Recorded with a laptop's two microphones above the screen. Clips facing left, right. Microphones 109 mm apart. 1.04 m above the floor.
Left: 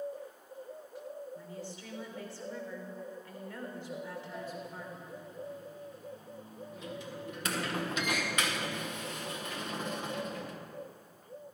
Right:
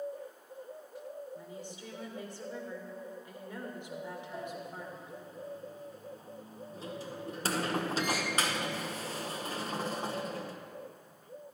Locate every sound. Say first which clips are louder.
1.4 s a woman speaking: left 1 dB; 20° right (ahead or behind), 3.5 m
4.3 s a sliding door: right 1 dB; 35° right (ahead or behind), 0.9 m